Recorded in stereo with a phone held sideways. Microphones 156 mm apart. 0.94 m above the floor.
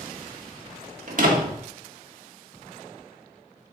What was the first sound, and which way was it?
A door slam, 60° right (ahead or behind).